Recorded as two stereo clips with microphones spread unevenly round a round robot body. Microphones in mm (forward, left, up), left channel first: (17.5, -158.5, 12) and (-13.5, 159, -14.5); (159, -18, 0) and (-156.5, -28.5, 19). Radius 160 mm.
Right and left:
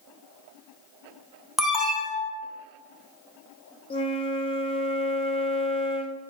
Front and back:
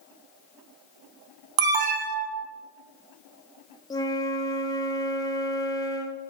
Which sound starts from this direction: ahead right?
A flute, at 3.9 s.